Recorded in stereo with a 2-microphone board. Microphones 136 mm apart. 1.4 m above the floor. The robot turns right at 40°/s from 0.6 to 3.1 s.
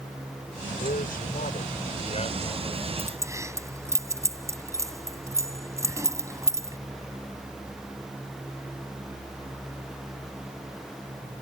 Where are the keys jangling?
15° right (ahead or behind); by 6.8 s 20° right (ahead or behind).